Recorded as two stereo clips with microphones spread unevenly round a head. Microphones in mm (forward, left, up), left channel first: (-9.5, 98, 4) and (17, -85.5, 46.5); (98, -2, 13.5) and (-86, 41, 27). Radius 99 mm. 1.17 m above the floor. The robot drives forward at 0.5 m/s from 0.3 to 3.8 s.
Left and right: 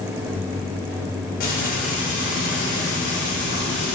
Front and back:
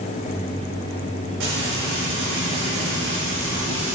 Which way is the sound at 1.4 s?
145° left.